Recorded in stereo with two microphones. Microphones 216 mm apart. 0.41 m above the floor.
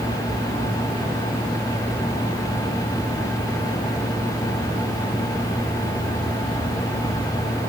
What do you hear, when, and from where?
Only background noise.